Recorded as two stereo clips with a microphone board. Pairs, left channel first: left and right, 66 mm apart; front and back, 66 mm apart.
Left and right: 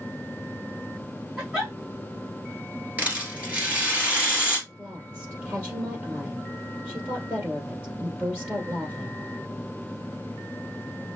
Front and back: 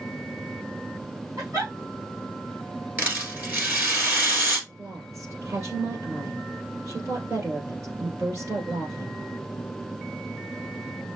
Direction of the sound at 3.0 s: 140° right.